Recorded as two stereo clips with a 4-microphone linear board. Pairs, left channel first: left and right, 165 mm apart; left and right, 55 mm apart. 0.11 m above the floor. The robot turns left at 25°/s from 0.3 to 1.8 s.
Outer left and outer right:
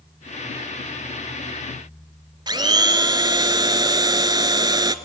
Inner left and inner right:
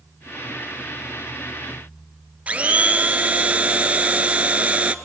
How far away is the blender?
About 0.8 m.